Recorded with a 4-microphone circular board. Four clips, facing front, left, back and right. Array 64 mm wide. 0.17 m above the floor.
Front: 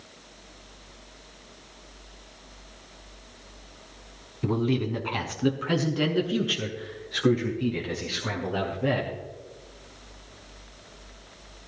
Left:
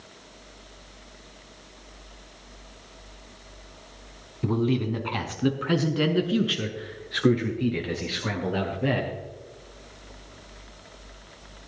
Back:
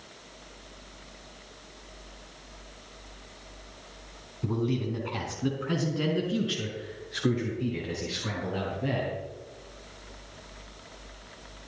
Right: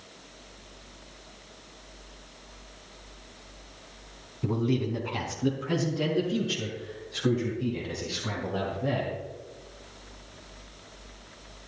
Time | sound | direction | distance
4.4 | a man speaking | 35° left | 1.3 m